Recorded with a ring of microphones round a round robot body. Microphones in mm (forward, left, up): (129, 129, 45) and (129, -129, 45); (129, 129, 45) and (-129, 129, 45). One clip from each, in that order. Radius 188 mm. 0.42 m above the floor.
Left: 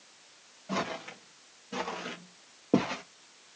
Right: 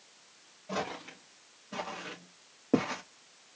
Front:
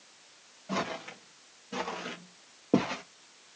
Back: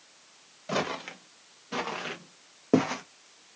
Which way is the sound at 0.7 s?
Straight behind.